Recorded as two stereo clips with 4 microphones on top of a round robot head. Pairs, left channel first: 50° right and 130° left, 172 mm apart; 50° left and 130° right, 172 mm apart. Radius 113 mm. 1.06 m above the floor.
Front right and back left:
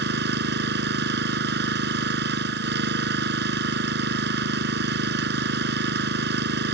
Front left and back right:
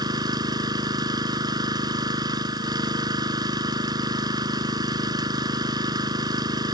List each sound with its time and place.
0.0 s an engine running: 160° left